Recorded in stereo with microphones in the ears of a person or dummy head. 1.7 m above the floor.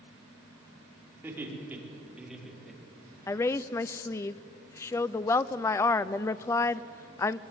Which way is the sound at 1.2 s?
15° right (ahead or behind).